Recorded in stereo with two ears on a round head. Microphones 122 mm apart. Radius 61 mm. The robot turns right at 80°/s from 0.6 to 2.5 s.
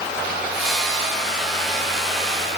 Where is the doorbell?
No doorbell in this recording.